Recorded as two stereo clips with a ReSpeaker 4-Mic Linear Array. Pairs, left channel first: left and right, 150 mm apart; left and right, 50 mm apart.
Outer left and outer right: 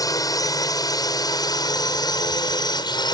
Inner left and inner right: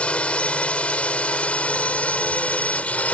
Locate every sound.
0.0 s a drone: 25° left (ahead or behind); by 3.1 s 30° left (ahead or behind)